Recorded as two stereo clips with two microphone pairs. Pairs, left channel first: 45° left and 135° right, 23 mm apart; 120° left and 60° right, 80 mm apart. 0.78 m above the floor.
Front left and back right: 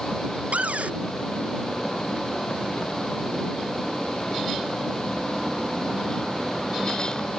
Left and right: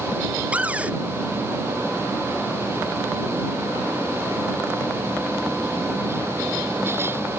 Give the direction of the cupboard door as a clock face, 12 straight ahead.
4 o'clock.